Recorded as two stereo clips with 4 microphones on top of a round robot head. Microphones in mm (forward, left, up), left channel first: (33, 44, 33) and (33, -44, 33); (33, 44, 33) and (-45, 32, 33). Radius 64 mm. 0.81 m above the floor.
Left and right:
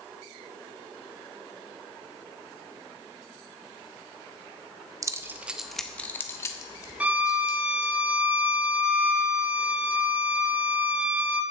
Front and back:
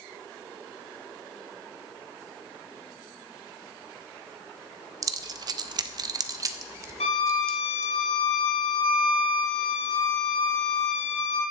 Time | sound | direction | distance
5.0 | keys jangling | 135° right | 0.6 m
7.0 | a violin | 15° right | 1.4 m